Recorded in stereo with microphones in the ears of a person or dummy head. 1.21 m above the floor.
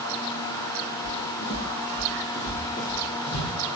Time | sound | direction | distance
1.0 | footsteps | 25° left (ahead or behind) | 1.7 m